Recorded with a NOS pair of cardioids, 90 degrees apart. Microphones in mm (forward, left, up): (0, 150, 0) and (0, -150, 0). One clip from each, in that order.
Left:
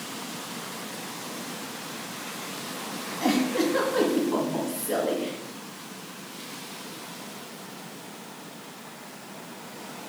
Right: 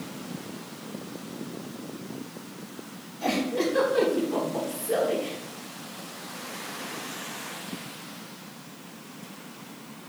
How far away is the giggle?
About 2.5 m.